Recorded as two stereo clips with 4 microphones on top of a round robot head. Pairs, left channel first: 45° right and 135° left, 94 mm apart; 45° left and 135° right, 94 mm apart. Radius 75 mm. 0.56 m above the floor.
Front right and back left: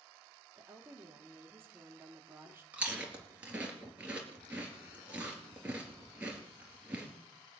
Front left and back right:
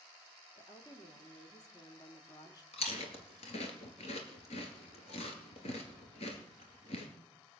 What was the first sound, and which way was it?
A woman speaking, 75° left.